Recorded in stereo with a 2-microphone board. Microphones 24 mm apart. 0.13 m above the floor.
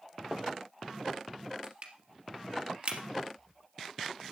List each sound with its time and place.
1.6 s crushing: 50° right (ahead or behind), 2.5 m